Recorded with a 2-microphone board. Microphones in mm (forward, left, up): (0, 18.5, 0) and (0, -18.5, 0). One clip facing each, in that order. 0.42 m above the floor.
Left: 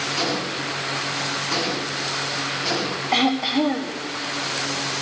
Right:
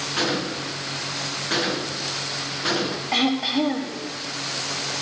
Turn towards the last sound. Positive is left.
turn(degrees=-5)  # may be behind; listen again after turning